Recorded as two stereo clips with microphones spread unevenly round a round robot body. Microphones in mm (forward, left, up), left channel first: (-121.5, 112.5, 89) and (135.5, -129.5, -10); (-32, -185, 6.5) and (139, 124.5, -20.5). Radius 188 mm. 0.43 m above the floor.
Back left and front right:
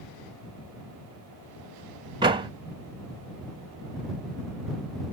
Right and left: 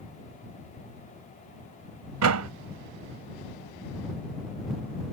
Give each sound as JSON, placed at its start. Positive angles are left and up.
{"t": 2.2, "sound": "a door slam", "azimuth_deg": 25}